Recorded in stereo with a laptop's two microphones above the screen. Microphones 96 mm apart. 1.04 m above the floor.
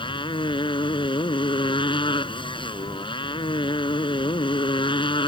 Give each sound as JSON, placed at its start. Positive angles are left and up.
{"t": 0.0, "sound": "a motorcycle", "side_deg": 65}